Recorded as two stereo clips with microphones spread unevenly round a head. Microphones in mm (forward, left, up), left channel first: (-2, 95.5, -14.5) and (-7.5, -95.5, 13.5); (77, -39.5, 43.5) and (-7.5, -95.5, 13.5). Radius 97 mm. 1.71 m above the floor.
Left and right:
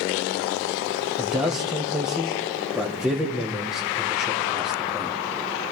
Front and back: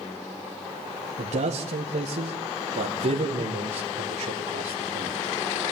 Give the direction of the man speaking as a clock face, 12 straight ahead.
6 o'clock.